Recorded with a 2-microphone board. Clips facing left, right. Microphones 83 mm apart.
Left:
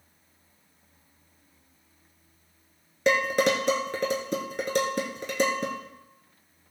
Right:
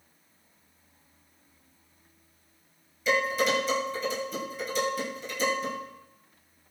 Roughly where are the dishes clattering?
Left.